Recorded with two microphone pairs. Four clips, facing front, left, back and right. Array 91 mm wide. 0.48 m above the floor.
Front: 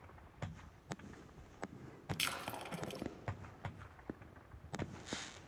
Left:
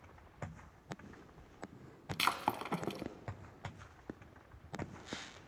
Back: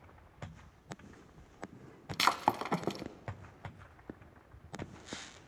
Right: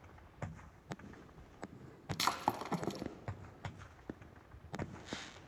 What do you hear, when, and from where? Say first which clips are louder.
2.1 s breaking glass: even, back 15 dB; straight behind, 0.9 m